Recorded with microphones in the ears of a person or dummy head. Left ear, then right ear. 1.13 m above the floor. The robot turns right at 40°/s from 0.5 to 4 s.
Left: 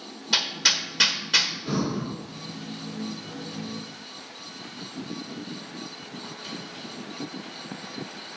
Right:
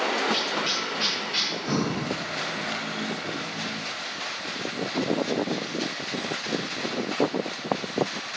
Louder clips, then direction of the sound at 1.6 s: Right 2 dB; 30° right (ahead or behind).